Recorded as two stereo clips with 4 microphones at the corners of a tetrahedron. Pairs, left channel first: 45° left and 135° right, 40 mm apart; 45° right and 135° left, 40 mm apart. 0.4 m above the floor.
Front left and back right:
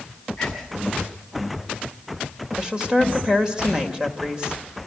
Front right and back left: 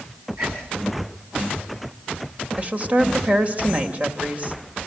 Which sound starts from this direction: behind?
A woman speaking, at 2.6 s.